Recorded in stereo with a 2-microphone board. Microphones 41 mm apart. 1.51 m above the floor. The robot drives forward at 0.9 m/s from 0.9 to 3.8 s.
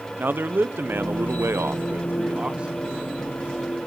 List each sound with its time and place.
0.2 s a man speaking: 55° right (ahead or behind), 0.7 m; by 2.9 s 25° right (ahead or behind), 1.5 m